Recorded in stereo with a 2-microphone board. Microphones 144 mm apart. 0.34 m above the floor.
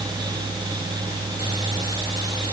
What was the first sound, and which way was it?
Only background noise.